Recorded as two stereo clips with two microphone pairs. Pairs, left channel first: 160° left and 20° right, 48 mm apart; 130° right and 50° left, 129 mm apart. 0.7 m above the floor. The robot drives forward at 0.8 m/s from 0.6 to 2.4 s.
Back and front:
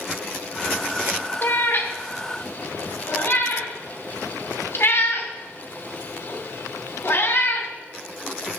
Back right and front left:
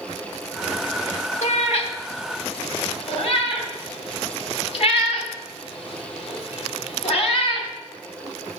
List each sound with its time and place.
1.4 s a cat meowing: 150° right, 1.1 m; by 7.7 s 165° right, 1.8 m